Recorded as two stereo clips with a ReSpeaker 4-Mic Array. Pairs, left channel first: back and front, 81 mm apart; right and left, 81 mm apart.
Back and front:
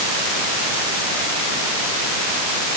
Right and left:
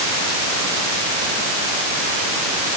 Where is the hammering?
No hammering in this recording.